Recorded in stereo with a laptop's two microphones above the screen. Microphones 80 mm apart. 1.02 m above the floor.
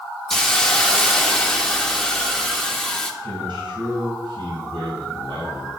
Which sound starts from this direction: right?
A man speaking, at 3.2 s.